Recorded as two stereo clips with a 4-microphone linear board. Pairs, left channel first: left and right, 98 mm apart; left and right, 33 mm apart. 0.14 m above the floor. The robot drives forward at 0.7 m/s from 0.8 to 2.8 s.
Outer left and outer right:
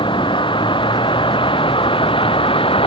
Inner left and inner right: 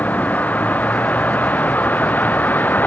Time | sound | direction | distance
0.0 | a vehicle | 60° left (ahead or behind) | ?